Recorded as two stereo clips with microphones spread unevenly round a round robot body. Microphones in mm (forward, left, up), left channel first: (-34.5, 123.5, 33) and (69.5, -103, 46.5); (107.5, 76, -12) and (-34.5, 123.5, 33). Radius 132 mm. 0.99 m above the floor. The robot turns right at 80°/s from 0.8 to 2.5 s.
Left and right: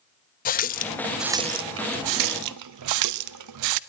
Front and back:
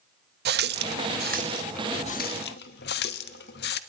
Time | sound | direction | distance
0.5 | a running tap | 175° left | 0.6 m